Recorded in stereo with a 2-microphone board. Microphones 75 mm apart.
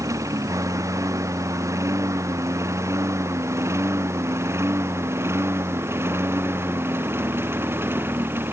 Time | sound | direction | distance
0.0 | a lawn mower | 45° right (ahead or behind) | ?